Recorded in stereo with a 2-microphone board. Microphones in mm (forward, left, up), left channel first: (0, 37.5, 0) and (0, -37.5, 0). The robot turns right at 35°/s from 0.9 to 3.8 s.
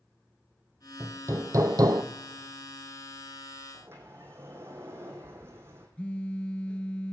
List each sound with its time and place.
1.0 s hammering: 150° right, 0.8 m; by 2.0 s 115° right, 0.8 m
3.7 s a sliding door: 35° right (ahead or behind), 3 m
6.0 s a phone buzzing: 15° left (ahead or behind), 0.6 m